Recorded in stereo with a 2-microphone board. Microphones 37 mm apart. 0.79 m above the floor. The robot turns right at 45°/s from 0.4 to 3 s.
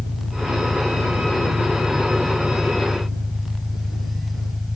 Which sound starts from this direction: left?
An engine running, at 0.0 s.